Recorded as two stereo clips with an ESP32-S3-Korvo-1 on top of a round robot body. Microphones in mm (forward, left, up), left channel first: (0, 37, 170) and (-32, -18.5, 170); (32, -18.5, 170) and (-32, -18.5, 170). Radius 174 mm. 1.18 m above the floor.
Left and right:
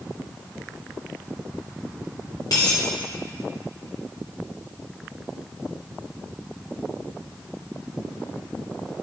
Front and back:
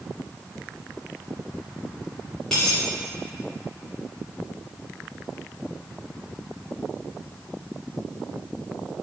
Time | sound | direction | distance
2.5 | a dropped coin | 85° left | 1.4 m